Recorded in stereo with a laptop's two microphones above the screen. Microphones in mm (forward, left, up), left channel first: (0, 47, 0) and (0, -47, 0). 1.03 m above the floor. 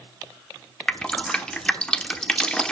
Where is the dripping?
10° left (ahead or behind), 1.0 m.